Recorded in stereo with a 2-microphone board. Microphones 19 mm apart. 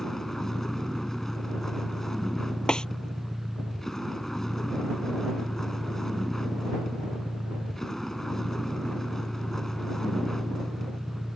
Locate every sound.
0.0 s a vehicle: 15° left (ahead or behind)
2.7 s a snare drum: 40° left (ahead or behind)